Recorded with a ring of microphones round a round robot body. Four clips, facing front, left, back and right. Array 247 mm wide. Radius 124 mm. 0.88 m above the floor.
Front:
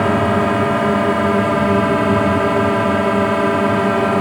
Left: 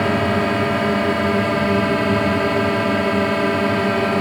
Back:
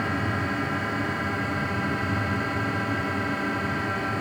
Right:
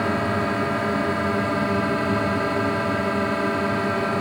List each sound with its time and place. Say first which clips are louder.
0.0 s a drone: left 5 dB, front 13 dB; 15° left